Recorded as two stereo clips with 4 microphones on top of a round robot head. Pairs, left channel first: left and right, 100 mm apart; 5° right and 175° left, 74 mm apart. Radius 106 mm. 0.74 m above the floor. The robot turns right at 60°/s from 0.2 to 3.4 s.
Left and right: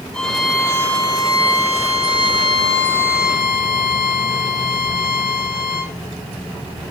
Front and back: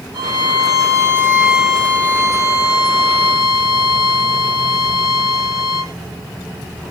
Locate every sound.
0.1 s a violin: 175° left, 7 m; by 5.9 s 5° left, 7 m